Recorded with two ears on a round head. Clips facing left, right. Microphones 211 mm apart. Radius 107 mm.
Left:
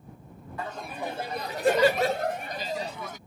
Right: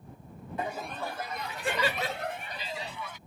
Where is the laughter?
20° right (ahead or behind); by 3.2 s 40° left (ahead or behind).